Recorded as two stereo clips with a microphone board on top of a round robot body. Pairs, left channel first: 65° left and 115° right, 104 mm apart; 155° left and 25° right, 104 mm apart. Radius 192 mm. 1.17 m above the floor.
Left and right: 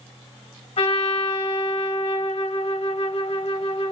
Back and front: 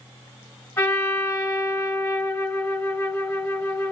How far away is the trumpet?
About 1.1 m.